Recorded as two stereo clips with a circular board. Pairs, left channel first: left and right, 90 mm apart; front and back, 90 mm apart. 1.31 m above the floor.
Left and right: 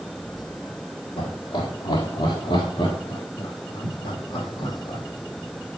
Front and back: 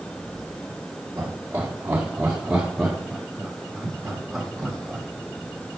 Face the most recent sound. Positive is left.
turn(degrees=85)